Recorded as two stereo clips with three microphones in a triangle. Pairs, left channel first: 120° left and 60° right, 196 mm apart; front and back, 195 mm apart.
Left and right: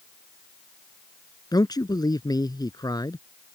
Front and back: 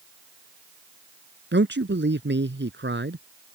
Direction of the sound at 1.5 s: 170° right.